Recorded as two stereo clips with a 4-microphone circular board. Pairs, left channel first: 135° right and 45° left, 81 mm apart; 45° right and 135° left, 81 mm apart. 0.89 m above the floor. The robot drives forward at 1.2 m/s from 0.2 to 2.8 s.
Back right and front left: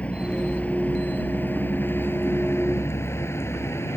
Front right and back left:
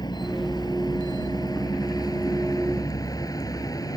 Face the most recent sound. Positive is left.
turn(degrees=-80)